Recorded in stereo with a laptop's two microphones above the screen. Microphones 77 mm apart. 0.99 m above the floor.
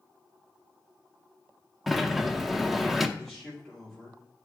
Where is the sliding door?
Centre (ahead or behind), 0.7 m.